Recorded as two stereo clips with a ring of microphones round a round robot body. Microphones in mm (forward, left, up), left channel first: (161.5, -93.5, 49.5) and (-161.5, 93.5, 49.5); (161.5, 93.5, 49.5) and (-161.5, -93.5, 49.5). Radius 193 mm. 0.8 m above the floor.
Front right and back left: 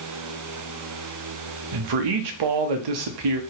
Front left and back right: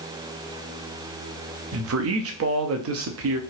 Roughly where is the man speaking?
Behind.